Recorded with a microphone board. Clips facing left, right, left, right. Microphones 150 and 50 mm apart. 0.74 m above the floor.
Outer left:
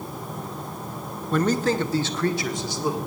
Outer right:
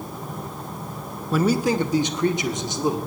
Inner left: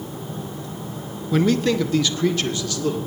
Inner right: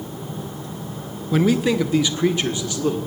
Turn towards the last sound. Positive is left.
turn(degrees=-20)  # may be behind; listen again after turning